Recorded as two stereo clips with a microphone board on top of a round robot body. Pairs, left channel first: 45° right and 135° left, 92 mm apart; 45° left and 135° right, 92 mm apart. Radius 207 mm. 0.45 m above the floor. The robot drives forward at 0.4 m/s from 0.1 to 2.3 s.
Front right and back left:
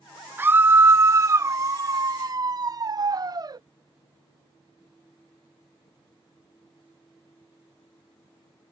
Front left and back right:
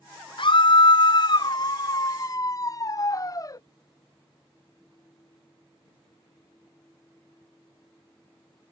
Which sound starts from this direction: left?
A scream, at 0.4 s.